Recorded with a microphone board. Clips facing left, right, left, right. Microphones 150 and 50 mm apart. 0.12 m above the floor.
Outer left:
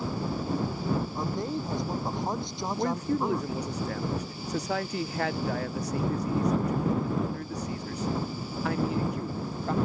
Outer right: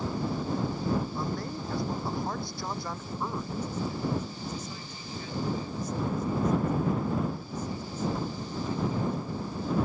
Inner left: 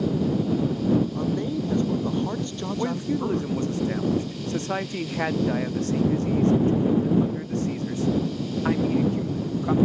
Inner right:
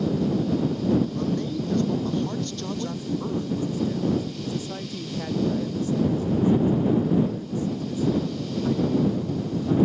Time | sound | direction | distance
1.1 | a man speaking | 20° left (ahead or behind) | ?
2.8 | a man speaking | 70° left (ahead or behind) | ?